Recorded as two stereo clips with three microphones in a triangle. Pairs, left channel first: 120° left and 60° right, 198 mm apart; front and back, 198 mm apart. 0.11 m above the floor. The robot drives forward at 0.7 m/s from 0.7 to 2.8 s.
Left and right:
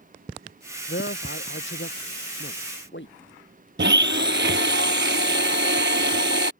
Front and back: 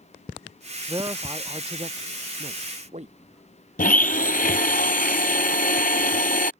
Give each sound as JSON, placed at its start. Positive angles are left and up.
{"t": 0.9, "sound": "a man speaking", "azimuth_deg": 110}
{"t": 3.8, "sound": "a blender", "azimuth_deg": -45}